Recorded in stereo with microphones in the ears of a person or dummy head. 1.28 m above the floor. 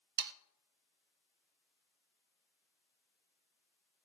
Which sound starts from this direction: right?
Sawing, at 0.2 s.